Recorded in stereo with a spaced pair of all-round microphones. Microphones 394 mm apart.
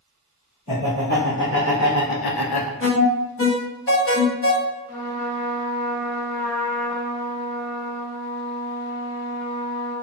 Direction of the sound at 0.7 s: 20° left (ahead or behind).